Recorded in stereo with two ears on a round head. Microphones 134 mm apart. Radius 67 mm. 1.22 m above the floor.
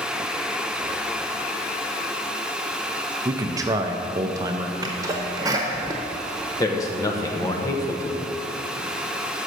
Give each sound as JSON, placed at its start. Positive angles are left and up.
{"t": 3.2, "sound": "a man speaking", "side_deg": -25, "distance_m": 0.6}
{"t": 4.8, "sound": "a sneeze", "side_deg": -25, "distance_m": 0.7}
{"t": 6.6, "sound": "a man speaking", "side_deg": 20, "distance_m": 0.9}